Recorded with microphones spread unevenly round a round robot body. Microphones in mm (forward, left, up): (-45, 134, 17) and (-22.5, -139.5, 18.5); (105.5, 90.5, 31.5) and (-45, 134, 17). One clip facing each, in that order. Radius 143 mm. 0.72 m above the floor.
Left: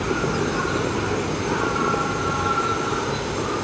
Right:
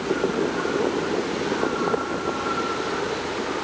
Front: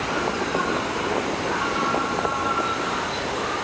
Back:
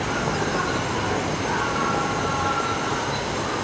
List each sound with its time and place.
0.0 s an insect: 115° left